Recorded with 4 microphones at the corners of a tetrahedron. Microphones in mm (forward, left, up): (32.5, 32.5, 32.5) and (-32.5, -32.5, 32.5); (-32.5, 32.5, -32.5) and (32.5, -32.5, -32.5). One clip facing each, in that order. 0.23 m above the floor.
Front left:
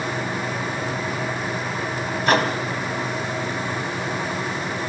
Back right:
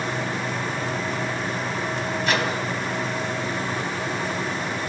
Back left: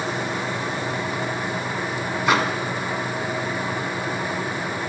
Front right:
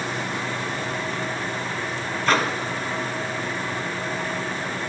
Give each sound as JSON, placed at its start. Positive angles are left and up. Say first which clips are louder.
{"t": 2.3, "sound": "a microwave", "louder": "front left 6 dB, back left 1 dB", "azimuth_deg": 60, "distance_m": 1.1}